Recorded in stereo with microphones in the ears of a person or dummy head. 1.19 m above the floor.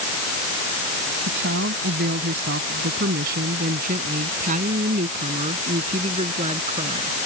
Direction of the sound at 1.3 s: 70° right (ahead or behind).